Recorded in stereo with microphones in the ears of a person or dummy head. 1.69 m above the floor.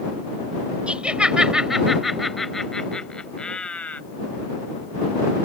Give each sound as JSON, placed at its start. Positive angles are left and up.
{"t": 0.9, "sound": "laughter", "side_deg": -5}